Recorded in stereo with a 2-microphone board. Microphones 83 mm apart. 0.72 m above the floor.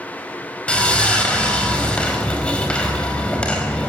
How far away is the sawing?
About 4.5 m.